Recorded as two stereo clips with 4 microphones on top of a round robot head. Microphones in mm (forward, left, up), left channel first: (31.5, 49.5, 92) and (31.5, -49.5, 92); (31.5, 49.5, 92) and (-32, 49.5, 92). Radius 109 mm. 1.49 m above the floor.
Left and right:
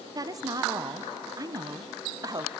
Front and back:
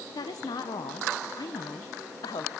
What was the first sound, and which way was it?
A woman speaking, 35° right.